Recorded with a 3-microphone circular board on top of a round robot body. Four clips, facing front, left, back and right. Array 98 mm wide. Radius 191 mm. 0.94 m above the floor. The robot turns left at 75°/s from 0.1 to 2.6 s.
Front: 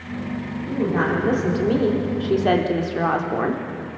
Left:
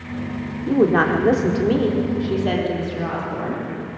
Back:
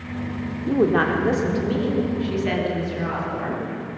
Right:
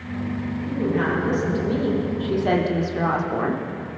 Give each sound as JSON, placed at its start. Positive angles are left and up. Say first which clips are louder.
{"t": 0.7, "sound": "a woman speaking", "louder": "left 7 dB, back 3 dB", "azimuth_deg": 130, "distance_m": 3.0}